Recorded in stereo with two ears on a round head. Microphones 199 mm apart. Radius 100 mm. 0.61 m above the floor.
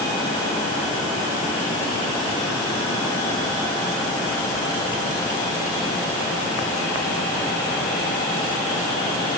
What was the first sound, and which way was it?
Only background noise.